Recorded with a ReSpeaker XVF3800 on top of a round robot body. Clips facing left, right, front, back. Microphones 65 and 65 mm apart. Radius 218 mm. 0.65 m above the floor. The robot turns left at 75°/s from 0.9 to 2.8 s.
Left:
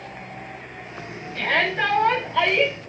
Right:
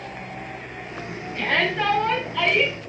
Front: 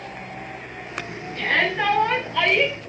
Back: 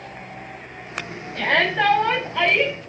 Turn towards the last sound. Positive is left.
turn(degrees=85)